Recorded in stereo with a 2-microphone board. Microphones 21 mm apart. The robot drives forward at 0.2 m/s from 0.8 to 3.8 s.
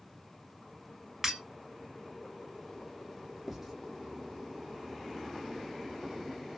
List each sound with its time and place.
1.2 s breaking glass: 15° right (ahead or behind), 1.4 m
3.5 s writing: 10° right (ahead or behind), 0.8 m; by 3.7 s 5° right (ahead or behind), 0.9 m